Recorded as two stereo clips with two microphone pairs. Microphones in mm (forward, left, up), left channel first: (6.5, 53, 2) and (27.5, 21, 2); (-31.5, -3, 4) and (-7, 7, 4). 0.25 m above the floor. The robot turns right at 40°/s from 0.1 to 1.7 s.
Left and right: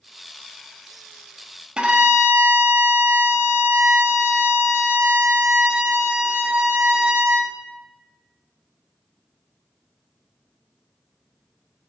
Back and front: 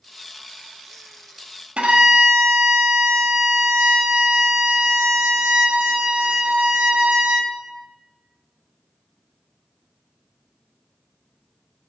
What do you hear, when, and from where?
1.8 s a violin: 5° left, 0.6 m